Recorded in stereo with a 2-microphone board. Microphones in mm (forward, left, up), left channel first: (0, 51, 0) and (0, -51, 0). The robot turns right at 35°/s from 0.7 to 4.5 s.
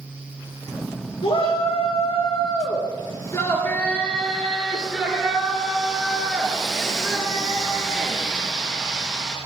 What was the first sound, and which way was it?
A shout, 70° left.